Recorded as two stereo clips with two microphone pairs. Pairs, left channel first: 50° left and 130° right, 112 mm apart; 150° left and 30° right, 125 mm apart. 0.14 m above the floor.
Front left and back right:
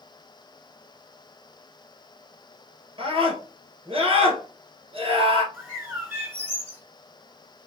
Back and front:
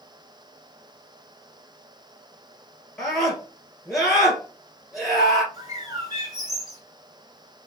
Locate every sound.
3.0 s a scream: 125° right, 2 m
5.5 s a bird: 65° right, 1.6 m